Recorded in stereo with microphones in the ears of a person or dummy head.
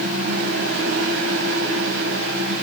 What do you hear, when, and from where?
0.0 s a fan: 80° right, 4 m